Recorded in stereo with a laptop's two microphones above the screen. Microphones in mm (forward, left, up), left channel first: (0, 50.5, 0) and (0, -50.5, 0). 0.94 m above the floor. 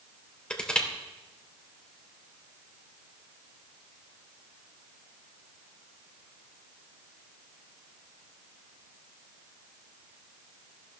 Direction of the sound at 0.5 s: 10° left (ahead or behind).